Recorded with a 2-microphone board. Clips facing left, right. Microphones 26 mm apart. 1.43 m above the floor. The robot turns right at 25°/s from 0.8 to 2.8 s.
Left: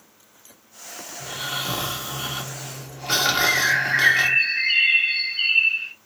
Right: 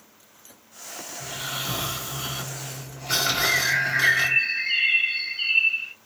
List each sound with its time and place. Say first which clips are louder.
1.2 s snoring: left 3 dB; 35° left, 2.0 m; by 4.4 s 75° left, 2.0 m
3.4 s a bird: left 2 dB; 60° left (ahead or behind), 1.6 m